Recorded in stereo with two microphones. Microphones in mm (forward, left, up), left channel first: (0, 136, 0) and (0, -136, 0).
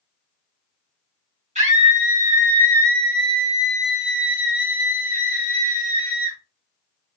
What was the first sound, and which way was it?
A scream, 25° right (ahead or behind).